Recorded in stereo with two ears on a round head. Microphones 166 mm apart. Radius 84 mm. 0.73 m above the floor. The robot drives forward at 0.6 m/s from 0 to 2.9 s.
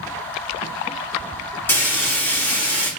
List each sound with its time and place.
1.7 s frying: 10° left (ahead or behind), 1.9 m